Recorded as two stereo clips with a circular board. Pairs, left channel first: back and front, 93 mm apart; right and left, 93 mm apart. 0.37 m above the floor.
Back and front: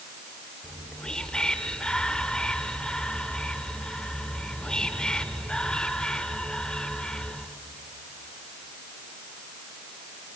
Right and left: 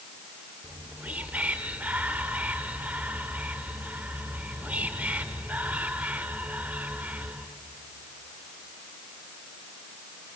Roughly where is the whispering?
Behind left.